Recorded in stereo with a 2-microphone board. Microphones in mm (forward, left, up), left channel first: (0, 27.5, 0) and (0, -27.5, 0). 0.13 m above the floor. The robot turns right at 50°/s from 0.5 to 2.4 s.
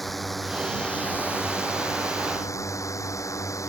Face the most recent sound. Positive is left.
turn(degrees=100)